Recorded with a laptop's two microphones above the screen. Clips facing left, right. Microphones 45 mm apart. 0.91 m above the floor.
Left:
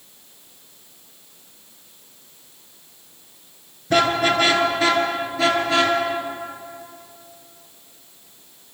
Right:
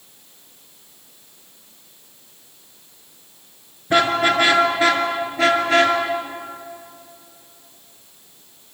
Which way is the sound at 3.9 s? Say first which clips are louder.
Right 1 dB; 20° right (ahead or behind).